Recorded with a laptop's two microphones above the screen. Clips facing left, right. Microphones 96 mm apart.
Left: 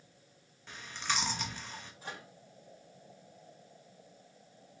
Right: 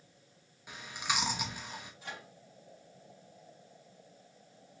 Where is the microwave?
35° left (ahead or behind), 1.4 m.